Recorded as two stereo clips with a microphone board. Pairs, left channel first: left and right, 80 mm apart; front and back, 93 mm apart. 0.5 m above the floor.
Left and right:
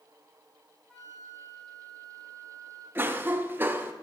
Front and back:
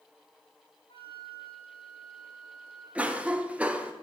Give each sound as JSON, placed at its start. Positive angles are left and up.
{"t": 0.9, "sound": "a flute", "azimuth_deg": 0, "distance_m": 2.5}
{"t": 3.0, "sound": "a cough", "azimuth_deg": -120, "distance_m": 0.8}